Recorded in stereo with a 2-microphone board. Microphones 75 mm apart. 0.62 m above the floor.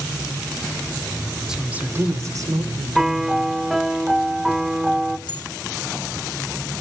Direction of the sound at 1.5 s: 5° right (ahead or behind).